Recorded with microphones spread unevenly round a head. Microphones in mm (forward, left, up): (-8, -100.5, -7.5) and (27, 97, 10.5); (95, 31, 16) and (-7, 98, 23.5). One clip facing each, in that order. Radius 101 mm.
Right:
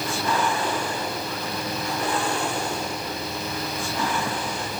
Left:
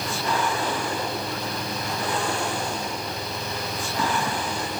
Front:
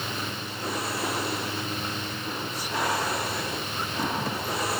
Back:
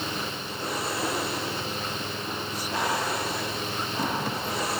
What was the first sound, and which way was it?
Only background noise.